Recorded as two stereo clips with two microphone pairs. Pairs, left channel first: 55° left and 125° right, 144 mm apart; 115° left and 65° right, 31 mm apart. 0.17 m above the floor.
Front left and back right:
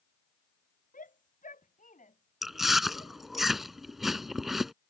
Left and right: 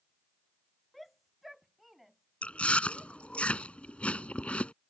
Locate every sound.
0.9 s a shout: 30° left; by 3.4 s 15° left
2.4 s chewing: 145° left